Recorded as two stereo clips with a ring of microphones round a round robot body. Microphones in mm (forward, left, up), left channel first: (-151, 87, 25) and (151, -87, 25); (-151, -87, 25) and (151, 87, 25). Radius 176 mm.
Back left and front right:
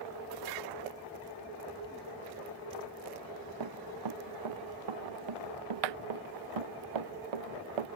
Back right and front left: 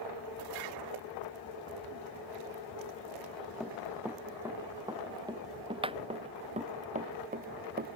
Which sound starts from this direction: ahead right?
Running footsteps, at 3.6 s.